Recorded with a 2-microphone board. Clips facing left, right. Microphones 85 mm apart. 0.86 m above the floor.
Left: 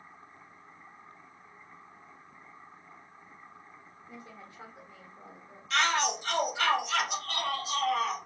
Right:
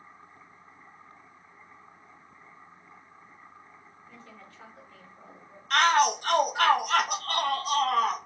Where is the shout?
50° right (ahead or behind), 0.5 m.